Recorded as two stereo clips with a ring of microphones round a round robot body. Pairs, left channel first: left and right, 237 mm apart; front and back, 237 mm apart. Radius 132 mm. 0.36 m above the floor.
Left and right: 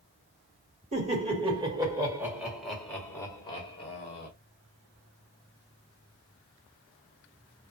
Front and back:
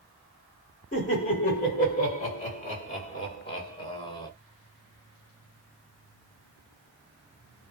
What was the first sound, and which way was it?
Laughter, 40° right.